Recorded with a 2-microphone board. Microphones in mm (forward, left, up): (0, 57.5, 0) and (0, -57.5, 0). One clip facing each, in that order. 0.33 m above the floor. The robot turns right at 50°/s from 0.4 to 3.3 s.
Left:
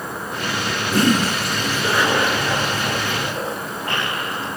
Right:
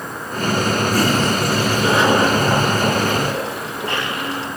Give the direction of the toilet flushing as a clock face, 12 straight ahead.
7 o'clock.